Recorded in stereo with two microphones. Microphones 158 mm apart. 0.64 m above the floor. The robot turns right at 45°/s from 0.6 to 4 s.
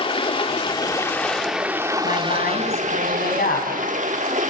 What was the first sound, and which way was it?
Running water, 140° left.